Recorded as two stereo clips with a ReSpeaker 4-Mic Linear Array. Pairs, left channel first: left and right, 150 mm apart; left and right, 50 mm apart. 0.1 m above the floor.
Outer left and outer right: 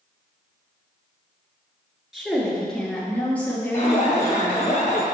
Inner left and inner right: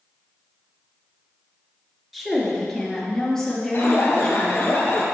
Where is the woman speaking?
5° right (ahead or behind), 1.6 m; by 4.7 s 15° left (ahead or behind), 3 m.